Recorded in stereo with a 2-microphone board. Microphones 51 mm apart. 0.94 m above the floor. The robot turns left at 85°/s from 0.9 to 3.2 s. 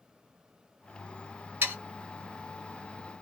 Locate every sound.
1.6 s sawing: 40° right (ahead or behind), 1.1 m